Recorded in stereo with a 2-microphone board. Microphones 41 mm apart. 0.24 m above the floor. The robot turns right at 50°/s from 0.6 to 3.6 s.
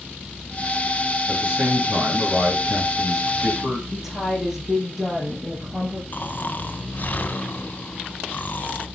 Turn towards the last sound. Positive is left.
turn(degrees=45)  # may be behind; listen again after turning